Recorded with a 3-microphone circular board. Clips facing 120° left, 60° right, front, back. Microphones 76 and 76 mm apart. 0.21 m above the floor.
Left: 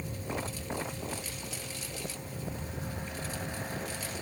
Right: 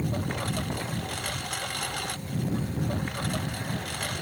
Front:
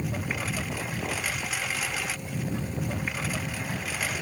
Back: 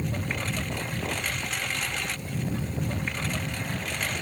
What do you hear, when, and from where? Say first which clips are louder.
0.0 s a lawn mower: right 6 dB, even; 85° right